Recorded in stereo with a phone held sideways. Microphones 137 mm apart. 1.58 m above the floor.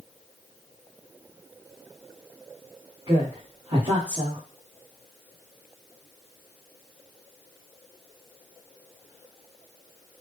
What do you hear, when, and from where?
3.1 s a woman speaking: 40° right (ahead or behind), 1.6 m